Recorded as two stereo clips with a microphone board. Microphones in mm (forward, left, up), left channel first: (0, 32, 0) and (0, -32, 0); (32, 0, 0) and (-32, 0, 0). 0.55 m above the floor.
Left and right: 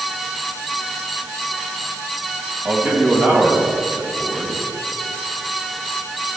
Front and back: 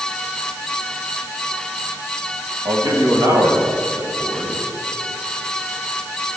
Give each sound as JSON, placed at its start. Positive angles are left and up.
{"t": 2.6, "sound": "a man speaking", "azimuth_deg": -155, "distance_m": 3.0}